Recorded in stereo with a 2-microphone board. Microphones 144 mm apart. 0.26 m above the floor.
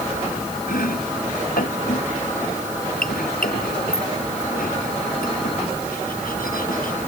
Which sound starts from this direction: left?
Chopping, at 0.7 s.